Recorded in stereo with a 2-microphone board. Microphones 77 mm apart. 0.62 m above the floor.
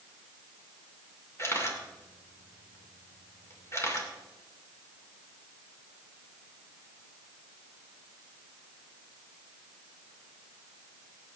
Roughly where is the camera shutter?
Left.